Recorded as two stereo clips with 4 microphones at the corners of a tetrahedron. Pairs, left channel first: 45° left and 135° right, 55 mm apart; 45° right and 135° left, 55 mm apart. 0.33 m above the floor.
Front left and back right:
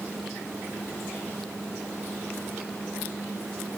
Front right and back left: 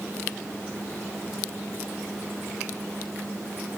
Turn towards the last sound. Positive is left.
No sound to turn to.